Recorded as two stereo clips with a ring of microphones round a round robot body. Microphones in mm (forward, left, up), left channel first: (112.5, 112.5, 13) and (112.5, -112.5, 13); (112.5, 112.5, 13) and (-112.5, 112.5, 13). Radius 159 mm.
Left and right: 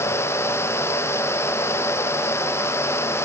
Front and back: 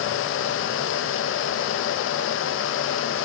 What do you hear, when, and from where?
Only background noise.